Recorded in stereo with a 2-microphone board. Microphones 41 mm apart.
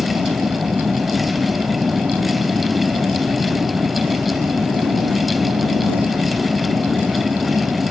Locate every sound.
0.0 s an aircraft: 55° right (ahead or behind)